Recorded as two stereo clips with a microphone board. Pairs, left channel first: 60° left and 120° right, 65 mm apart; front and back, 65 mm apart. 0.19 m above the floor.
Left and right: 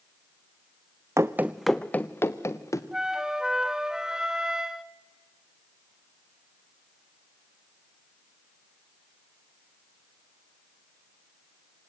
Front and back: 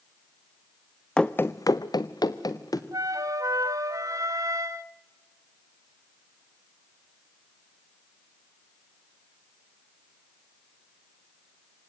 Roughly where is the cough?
I don't hear a cough.